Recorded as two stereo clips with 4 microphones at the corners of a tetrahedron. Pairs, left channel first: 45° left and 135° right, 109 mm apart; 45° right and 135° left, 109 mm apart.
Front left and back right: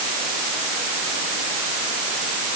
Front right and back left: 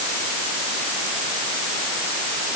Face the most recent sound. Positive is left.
No sound to turn to.